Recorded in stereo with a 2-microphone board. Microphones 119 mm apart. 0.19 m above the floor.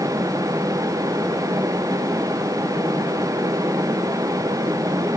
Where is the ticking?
No ticking in this recording.